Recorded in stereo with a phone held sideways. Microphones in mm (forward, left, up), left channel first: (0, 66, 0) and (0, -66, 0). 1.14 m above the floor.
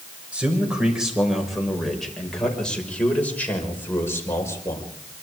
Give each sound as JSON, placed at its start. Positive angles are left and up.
{"t": 0.3, "sound": "a man speaking", "side_deg": -10, "distance_m": 6.0}